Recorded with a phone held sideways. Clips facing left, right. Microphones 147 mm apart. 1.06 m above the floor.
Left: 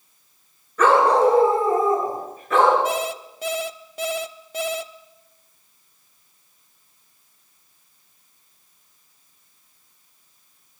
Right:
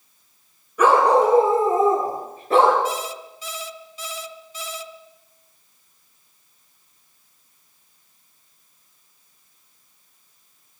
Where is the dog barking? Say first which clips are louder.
Even; 10° right (ahead or behind), 6.5 m; by 2.8 s 35° right (ahead or behind), 7.5 m.